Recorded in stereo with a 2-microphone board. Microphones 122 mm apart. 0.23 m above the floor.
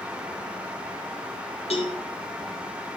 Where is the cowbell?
55° left (ahead or behind), 3 m.